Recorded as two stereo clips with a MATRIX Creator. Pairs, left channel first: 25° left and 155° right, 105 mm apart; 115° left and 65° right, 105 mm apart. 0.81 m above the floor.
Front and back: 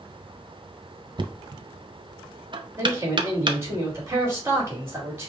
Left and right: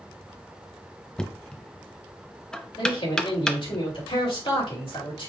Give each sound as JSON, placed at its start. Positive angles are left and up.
{"t": 1.2, "sound": "knocking", "azimuth_deg": -165, "distance_m": 0.5}
{"t": 2.8, "sound": "a man speaking", "azimuth_deg": 140, "distance_m": 2.5}